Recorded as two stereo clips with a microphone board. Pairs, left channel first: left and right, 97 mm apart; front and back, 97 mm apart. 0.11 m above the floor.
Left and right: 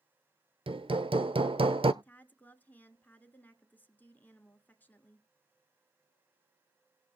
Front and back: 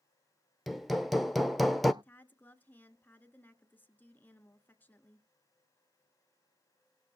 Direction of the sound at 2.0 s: 40° left.